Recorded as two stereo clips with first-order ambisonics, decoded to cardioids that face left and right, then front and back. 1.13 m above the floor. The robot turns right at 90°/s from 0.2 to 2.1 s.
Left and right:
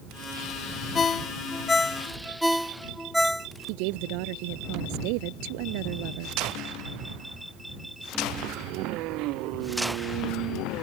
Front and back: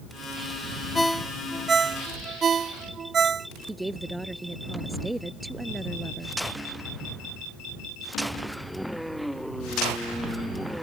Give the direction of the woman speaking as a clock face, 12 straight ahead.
3 o'clock.